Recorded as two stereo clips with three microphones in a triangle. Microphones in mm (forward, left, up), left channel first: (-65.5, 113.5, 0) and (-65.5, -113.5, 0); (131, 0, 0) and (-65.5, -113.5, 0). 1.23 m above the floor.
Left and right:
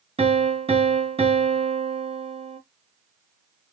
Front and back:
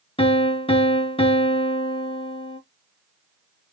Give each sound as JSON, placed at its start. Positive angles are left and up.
{"t": 0.2, "sound": "a piano", "azimuth_deg": -35, "distance_m": 0.8}